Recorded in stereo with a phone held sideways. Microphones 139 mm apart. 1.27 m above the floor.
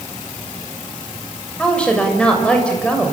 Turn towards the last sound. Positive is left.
turn(degrees=5)  # may be behind; listen again after turning